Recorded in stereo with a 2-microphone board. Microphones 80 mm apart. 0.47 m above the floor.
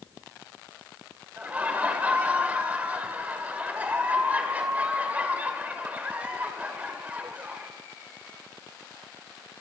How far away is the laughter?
About 2 m.